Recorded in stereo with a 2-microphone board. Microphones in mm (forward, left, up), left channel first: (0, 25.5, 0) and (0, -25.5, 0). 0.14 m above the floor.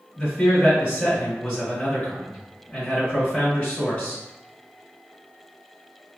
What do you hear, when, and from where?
0.2 s a man speaking: 20° left (ahead or behind), 1.6 m